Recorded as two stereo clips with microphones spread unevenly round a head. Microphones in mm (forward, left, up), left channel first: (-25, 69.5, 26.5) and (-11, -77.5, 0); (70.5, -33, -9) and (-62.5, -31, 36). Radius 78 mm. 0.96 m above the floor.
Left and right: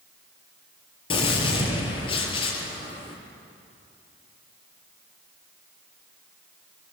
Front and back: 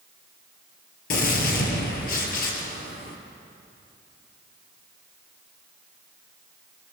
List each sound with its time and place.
1.1 s a gunshot: 40° left, 4.5 m